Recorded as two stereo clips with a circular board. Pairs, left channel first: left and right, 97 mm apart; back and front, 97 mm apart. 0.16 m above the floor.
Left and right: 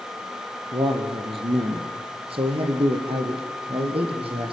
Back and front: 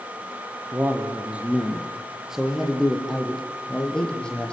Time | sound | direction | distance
0.7 | a man speaking | 70° right | 4 m